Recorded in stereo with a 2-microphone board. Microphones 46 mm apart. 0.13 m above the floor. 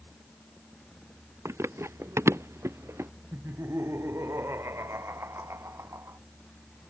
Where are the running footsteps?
90° right; by 3.1 s 80° right.